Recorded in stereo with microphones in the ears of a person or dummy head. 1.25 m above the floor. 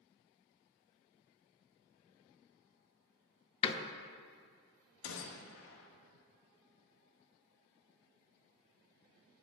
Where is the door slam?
30° left (ahead or behind), 0.7 m.